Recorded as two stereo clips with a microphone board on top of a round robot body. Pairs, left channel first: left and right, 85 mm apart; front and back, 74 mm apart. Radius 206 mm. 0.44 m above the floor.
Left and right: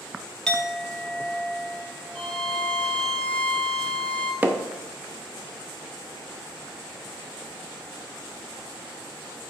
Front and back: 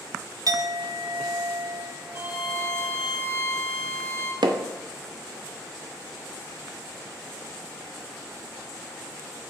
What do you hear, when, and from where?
0.5 s a clink: 170° left, 0.9 m
2.1 s a violin: 155° left, 1.3 m
4.4 s hammering: 160° right, 0.6 m